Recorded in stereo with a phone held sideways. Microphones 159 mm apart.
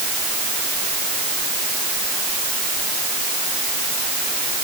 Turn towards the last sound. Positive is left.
No sound to turn to.